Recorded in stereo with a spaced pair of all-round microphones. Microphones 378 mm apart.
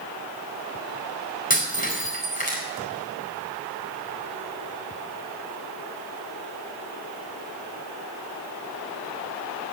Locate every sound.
1.5 s breaking glass: 20° left (ahead or behind), 4.5 m